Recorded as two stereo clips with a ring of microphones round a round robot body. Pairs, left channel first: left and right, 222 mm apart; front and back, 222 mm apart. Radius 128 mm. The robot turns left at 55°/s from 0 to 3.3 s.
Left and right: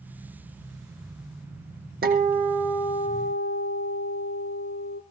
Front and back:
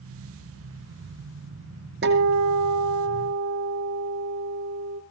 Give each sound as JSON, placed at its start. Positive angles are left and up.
{"t": 2.0, "sound": "a guitar", "azimuth_deg": -140, "distance_m": 4.0}